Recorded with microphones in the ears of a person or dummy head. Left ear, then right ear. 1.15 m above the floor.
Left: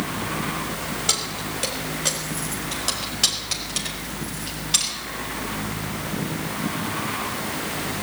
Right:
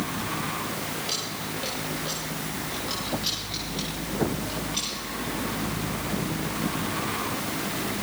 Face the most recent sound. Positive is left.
turn(degrees=80)